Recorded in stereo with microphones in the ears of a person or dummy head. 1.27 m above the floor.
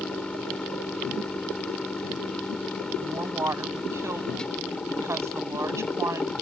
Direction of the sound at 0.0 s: 10° left (ahead or behind).